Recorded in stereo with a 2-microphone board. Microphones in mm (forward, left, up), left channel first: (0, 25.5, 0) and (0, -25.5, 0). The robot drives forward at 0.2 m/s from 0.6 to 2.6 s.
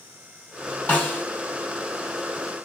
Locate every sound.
0.9 s a snare drum: 25° left (ahead or behind), 4 m